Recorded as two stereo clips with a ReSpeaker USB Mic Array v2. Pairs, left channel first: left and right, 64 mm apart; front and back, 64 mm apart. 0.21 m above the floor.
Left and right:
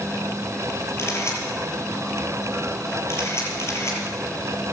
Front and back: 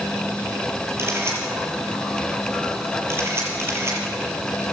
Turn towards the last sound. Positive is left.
turn(degrees=130)